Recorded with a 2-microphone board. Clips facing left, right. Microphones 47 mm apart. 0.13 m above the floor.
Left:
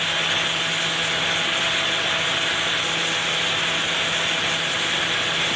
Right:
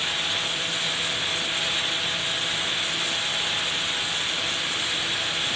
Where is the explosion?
I don't hear an explosion.